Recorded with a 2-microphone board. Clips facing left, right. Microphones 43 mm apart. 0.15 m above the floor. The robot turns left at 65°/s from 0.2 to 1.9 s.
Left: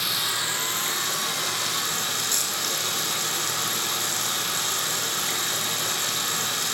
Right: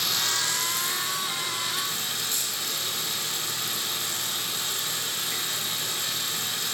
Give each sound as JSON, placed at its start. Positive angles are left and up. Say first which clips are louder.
{"t": 0.0, "sound": "running water", "louder": "left 1 dB", "azimuth_deg": 170, "distance_m": 3.5}